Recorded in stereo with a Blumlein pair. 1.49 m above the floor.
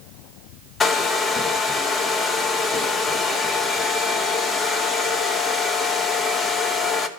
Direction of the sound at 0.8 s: 15° left.